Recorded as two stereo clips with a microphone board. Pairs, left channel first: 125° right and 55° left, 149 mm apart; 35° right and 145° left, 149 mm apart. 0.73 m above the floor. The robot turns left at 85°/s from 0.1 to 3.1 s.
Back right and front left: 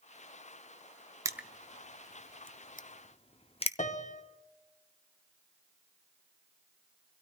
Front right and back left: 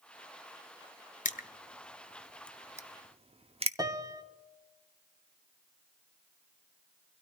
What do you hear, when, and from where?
1.2 s crushing: 10° right, 0.6 m; by 3.7 s 170° right, 0.6 m
3.8 s a piano: 150° right, 1.0 m